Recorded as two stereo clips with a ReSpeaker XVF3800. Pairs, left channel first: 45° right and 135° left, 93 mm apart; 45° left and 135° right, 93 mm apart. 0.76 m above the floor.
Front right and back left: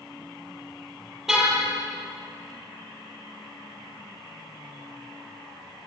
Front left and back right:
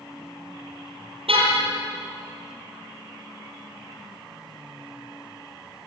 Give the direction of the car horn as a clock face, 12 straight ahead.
5 o'clock.